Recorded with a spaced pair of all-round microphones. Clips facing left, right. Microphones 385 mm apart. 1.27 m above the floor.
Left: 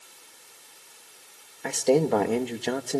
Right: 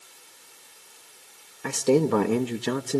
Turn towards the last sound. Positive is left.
turn(degrees=-15)  # may be behind; listen again after turning